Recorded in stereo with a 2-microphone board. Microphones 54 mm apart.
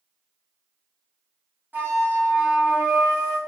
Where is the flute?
40° right (ahead or behind), 1.5 m.